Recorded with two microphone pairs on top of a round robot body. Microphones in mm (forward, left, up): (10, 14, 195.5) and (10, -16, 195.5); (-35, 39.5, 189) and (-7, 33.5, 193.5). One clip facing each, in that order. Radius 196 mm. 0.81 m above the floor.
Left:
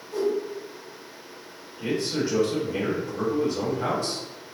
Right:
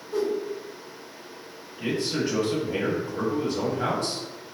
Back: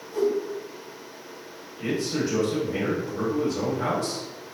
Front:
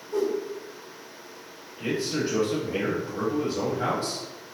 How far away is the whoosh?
About 0.8 m.